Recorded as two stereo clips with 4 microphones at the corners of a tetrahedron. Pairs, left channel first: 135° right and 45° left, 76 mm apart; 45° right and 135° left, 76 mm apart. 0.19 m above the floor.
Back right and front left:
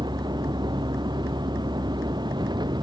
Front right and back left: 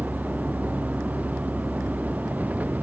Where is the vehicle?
65° left.